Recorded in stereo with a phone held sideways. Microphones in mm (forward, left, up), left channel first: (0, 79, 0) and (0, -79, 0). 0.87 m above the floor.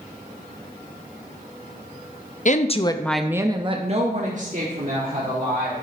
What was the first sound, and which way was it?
A woman speaking, 55° left (ahead or behind).